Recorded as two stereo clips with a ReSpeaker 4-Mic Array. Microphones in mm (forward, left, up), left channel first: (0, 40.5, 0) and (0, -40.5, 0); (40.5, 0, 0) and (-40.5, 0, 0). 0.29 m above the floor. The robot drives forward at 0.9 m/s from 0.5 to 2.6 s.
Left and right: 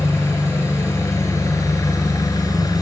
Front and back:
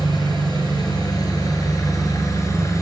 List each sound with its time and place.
0.0 s an engine running: 35° left, 5 m; by 2.8 s 50° left, 4 m